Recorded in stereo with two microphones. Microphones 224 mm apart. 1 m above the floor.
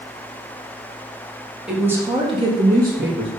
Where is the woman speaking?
5° right (ahead or behind), 1.8 m; by 3.3 s 55° right (ahead or behind), 1.4 m.